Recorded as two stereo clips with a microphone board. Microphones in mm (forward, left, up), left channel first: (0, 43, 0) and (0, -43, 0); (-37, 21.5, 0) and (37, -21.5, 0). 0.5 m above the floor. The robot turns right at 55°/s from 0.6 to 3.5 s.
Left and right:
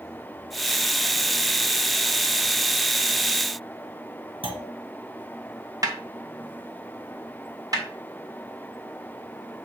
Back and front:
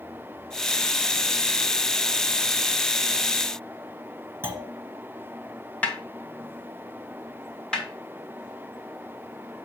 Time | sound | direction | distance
4.4 | a clunk | 95° right | 1.8 m
5.8 | a snare drum | 140° right | 1.4 m
7.7 | a snare drum | 130° right | 3 m